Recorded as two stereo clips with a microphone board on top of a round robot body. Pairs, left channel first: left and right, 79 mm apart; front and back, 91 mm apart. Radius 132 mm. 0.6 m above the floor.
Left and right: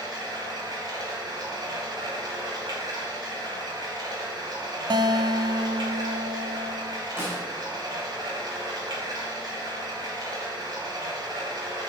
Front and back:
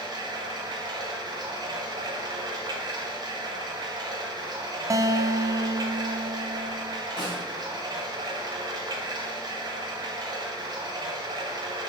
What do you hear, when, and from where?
0.0 s running water: 130° right, 1.6 m
4.9 s a guitar: 125° right, 0.6 m
7.2 s a snare drum: 30° right, 3.5 m